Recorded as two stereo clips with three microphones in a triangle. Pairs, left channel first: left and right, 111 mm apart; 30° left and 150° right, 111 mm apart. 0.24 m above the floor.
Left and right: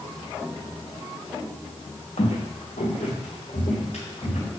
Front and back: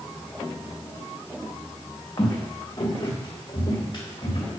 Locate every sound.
2.2 s footsteps: 85° left, 1.1 m; by 4.5 s 75° left, 2.5 m